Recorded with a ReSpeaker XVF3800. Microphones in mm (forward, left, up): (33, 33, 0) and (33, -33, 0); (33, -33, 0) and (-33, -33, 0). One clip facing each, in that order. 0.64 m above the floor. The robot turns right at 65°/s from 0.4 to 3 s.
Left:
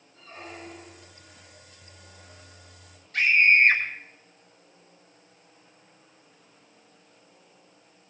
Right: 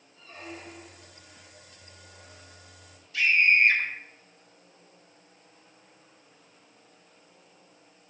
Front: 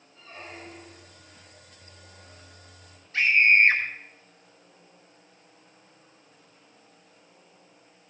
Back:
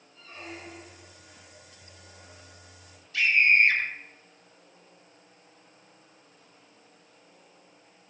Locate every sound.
0.1 s a squeak: 55° left, 8.5 m; by 1.1 s 100° left, 8.5 m
3.1 s a scream: 50° left, 3.5 m